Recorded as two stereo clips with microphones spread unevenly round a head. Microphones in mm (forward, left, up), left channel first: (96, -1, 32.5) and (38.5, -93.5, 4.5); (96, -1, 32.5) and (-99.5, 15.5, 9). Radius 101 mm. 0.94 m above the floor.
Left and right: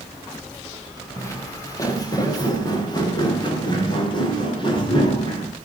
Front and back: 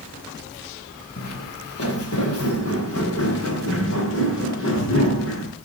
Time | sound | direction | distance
1.2 | footsteps | straight ahead | 4.5 m